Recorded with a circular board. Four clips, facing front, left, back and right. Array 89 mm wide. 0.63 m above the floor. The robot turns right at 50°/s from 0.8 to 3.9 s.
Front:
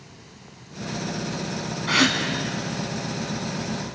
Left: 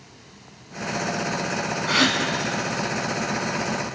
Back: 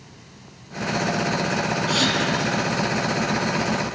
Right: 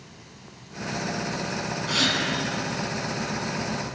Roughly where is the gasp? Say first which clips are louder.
Left 5 dB, front 5 dB; ahead left.